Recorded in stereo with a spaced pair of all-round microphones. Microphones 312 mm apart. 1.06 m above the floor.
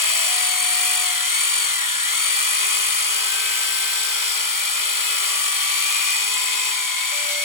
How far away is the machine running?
About 0.8 m.